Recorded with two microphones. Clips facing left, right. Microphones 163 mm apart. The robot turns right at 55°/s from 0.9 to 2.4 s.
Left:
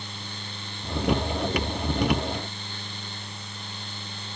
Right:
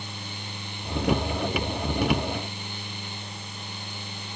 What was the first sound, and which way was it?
Only background noise.